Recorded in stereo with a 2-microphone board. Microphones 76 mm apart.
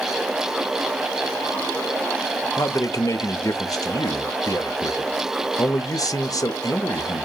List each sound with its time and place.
2.6 s a man speaking: 50° left (ahead or behind), 0.7 m